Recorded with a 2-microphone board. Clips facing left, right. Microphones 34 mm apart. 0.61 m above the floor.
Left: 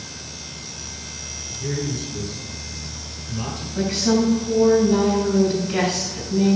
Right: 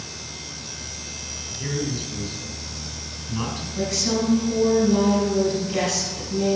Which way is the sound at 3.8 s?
25° left (ahead or behind).